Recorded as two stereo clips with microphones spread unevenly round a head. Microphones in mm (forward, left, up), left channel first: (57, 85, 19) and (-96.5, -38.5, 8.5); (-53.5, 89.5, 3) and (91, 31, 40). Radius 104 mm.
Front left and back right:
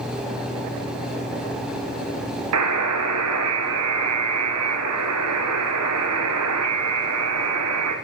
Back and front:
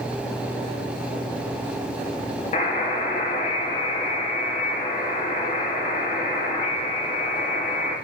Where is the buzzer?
140° right, 1.3 m.